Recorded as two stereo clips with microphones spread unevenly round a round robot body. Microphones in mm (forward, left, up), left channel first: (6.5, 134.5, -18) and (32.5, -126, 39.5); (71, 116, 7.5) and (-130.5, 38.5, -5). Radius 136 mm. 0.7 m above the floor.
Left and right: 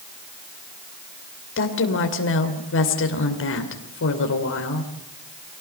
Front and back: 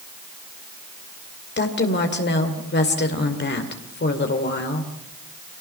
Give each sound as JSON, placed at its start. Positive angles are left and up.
{"t": 1.6, "sound": "a woman speaking", "azimuth_deg": 60, "distance_m": 2.5}